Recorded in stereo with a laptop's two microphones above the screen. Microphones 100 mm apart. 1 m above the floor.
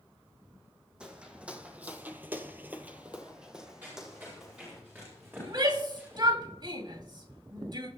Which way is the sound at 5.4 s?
50° right (ahead or behind).